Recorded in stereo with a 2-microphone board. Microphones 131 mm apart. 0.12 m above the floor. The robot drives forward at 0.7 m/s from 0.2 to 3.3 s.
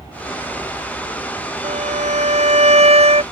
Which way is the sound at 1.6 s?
60° right (ahead or behind).